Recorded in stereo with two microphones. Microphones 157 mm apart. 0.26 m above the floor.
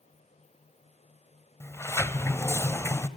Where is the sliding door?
15° left (ahead or behind), 1.0 m.